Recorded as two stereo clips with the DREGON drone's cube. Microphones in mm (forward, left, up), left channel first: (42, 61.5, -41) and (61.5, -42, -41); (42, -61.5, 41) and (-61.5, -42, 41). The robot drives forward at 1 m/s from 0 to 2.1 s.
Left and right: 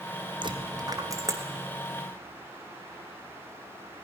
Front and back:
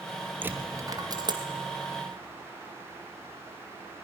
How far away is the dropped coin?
About 1.4 m.